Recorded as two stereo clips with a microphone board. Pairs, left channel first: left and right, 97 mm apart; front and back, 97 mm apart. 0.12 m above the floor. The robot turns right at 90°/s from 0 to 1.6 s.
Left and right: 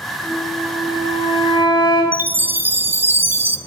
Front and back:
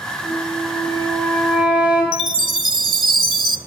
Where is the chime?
155° right, 0.5 m.